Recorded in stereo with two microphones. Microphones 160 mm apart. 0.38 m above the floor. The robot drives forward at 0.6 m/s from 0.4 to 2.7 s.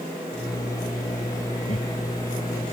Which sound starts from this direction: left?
Laughter, at 1.7 s.